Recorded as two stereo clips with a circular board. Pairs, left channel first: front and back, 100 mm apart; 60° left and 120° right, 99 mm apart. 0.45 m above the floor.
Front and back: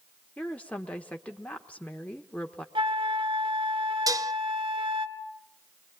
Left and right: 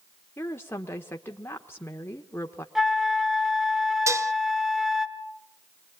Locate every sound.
0.4 s a woman speaking: 55° left, 1.0 m
2.8 s a flute: 150° left, 1.2 m
4.1 s dishes clattering: 160° right, 0.6 m